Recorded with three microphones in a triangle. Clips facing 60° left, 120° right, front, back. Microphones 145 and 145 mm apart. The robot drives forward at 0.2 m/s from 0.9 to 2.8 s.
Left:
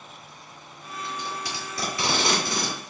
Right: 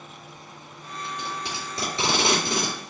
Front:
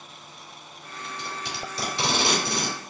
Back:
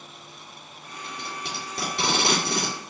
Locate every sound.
1.0 s tape being pulled: straight behind, 2.5 m